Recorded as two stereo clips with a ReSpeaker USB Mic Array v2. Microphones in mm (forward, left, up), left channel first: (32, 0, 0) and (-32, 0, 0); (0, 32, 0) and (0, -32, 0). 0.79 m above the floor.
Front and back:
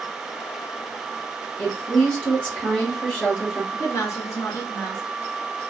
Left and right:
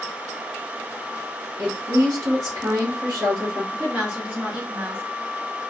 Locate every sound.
1.6 s a woman speaking: 75° right, 1.1 m
3.7 s a woman speaking: 20° right, 1.2 m